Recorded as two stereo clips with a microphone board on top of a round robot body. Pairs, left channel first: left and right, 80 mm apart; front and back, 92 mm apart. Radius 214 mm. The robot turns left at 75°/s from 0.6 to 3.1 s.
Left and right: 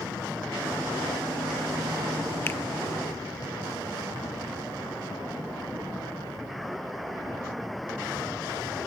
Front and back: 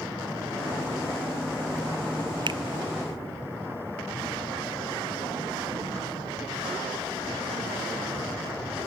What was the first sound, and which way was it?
A finger snap, 155° left.